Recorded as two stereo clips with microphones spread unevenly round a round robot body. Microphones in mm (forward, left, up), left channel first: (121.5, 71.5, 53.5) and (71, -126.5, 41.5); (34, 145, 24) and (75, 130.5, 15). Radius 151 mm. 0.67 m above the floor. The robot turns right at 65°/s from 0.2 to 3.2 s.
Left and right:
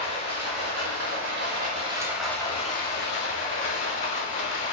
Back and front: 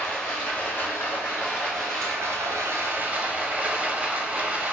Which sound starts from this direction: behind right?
Running water, at 0.0 s.